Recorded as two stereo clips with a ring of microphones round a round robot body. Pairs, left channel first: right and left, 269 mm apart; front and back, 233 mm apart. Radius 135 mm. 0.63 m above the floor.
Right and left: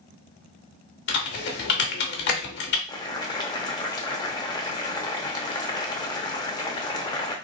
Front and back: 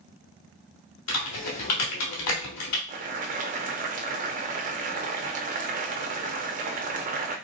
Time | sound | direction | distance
1.1 | typing on a keyboard | 35° right | 0.8 m
2.9 | boiling | 155° right | 0.6 m